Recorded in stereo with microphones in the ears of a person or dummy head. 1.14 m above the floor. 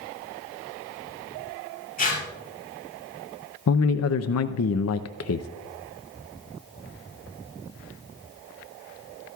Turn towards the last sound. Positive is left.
turn(degrees=80)